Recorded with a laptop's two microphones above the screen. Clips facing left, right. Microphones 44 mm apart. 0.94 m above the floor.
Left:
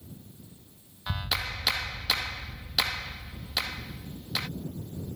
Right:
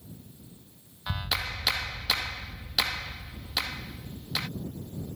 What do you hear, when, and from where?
1.1 s a clap: centre (ahead or behind)